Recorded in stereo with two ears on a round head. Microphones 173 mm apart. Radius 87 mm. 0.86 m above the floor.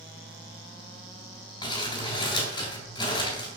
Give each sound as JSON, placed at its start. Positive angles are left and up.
{"t": 1.6, "sound": "crumpling", "side_deg": 25, "distance_m": 5.5}